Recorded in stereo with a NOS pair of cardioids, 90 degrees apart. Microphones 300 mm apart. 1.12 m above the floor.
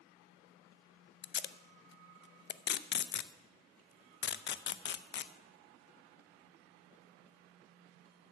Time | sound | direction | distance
1.2 | tape being pulled | 35° left | 0.5 m